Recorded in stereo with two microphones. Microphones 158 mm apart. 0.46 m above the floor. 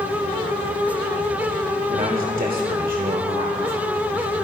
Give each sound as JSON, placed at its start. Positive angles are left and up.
{"t": 1.9, "sound": "a man speaking", "side_deg": -60, "distance_m": 1.4}